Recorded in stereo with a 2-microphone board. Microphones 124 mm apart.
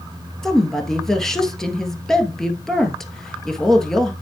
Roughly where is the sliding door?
I don't hear a sliding door.